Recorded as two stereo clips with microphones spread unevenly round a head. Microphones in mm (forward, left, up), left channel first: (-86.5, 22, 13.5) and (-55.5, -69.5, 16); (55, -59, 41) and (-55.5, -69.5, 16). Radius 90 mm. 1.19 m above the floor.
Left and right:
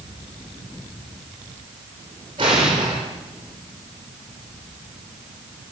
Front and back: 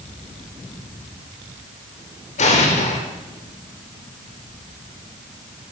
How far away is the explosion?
About 4.5 m.